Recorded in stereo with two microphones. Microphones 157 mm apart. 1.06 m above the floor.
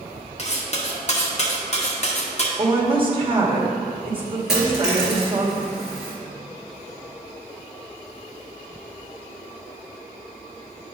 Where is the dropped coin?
5° right (ahead or behind), 3 m.